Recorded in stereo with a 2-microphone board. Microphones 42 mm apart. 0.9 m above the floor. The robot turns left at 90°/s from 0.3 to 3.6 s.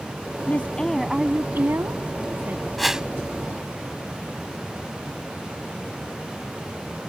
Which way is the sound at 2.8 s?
5° left (ahead or behind).